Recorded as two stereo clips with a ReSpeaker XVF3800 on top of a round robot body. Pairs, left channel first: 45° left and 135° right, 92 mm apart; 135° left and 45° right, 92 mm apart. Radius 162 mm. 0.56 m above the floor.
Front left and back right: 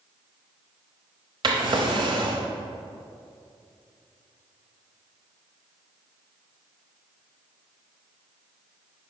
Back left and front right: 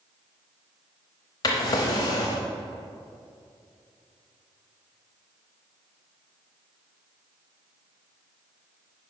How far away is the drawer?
About 0.9 m.